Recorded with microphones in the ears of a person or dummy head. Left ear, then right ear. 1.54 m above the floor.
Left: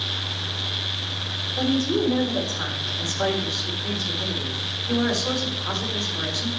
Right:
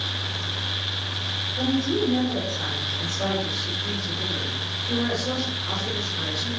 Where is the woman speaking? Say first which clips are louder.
Left 2 dB; 50° left (ahead or behind), 4.5 m.